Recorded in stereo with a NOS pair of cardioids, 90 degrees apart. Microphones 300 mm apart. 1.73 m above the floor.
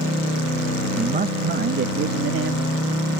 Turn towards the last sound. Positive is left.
turn(degrees=-50)